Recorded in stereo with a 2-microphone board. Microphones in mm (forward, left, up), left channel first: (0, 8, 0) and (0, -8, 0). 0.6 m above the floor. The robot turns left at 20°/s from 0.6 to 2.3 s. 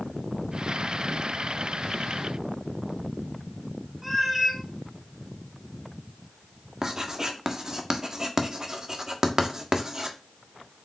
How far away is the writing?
About 1.4 m.